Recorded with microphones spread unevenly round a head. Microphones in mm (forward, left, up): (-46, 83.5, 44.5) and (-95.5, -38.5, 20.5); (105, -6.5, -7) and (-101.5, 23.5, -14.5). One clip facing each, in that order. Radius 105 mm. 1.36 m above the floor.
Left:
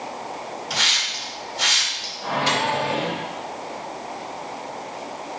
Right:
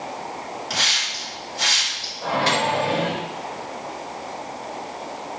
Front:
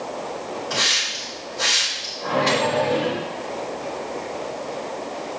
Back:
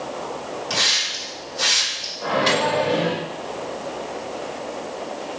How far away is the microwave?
About 4 m.